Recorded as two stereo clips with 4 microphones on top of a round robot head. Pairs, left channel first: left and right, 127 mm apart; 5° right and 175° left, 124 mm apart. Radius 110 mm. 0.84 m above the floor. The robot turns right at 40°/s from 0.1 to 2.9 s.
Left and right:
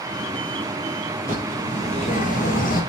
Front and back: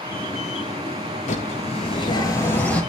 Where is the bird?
15° left, 8 m; by 2.8 s 80° left, 8 m.